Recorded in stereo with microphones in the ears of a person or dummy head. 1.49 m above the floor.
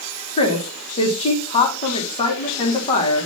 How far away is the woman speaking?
About 2 m.